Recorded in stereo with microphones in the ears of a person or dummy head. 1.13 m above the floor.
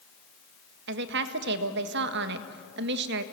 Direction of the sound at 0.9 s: 60° right (ahead or behind).